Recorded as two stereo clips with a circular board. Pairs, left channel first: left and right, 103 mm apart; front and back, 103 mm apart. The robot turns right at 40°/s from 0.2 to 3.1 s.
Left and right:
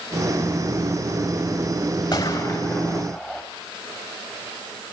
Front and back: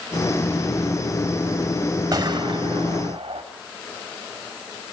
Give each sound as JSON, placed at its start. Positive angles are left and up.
{"t": 2.1, "sound": "a gunshot", "azimuth_deg": 130, "distance_m": 3.0}